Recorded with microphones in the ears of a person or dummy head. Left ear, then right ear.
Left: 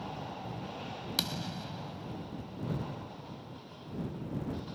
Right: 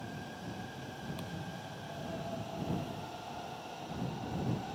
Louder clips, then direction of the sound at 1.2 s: Left 8 dB; 70° left (ahead or behind).